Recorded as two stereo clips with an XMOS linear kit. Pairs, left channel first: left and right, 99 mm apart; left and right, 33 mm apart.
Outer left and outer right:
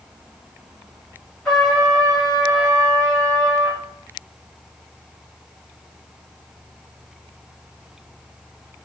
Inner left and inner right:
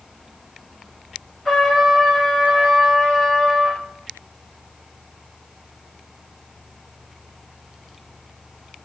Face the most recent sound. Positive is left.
turn(degrees=5)  # may be behind; listen again after turning